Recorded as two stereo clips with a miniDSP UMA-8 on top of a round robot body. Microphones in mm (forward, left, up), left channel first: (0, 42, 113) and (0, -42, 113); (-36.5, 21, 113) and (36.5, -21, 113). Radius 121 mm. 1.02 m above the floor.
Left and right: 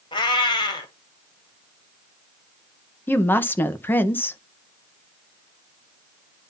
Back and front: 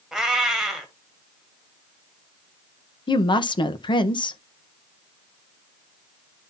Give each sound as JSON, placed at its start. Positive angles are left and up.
{"t": 0.1, "sound": "a cat meowing", "azimuth_deg": 55, "distance_m": 1.2}
{"t": 3.1, "sound": "a woman speaking", "azimuth_deg": 155, "distance_m": 1.1}